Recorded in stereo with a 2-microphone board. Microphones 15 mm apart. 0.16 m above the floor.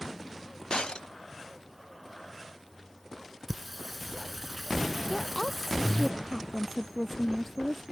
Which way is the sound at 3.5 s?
5° right (ahead or behind).